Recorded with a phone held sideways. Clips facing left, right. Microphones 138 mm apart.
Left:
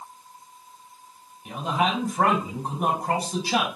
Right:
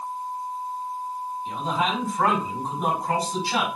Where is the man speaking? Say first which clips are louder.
Left 2 dB; 75° left (ahead or behind), 4 m.